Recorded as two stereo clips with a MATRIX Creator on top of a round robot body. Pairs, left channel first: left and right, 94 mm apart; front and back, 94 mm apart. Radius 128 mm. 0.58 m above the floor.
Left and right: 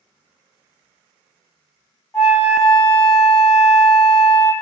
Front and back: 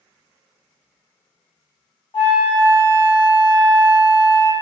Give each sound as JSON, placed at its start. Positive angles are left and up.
{"t": 2.1, "sound": "a flute", "azimuth_deg": 35, "distance_m": 1.8}